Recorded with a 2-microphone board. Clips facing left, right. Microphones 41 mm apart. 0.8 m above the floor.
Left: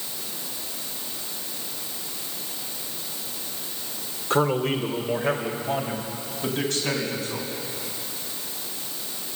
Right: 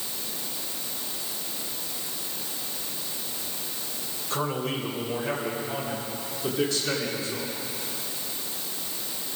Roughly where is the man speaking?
Left.